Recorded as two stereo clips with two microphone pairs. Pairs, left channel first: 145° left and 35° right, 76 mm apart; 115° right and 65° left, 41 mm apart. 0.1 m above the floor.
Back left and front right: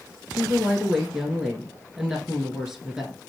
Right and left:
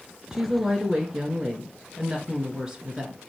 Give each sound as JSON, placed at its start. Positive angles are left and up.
{"t": 0.3, "sound": "a woman speaking", "azimuth_deg": 35, "distance_m": 1.1}